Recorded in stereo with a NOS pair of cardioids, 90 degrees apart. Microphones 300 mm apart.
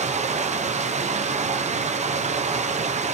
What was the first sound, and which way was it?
Running water, 20° right.